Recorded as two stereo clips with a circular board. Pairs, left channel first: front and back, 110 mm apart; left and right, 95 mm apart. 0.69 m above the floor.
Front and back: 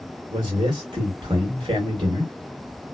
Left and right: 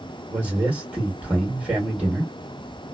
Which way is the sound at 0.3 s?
160° right.